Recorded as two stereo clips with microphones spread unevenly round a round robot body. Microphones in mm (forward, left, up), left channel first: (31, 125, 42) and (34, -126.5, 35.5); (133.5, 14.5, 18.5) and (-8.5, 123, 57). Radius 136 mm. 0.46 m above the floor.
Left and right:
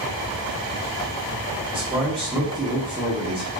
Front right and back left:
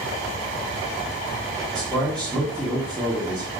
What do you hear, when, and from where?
1.7 s a man speaking: 75° right, 1.1 m